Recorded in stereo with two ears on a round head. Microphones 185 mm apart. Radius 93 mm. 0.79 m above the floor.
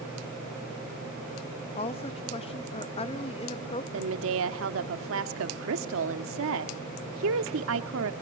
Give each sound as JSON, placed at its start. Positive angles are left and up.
{"t": 1.8, "sound": "a woman speaking", "side_deg": 30, "distance_m": 0.7}
{"t": 3.9, "sound": "a woman speaking", "side_deg": -75, "distance_m": 1.6}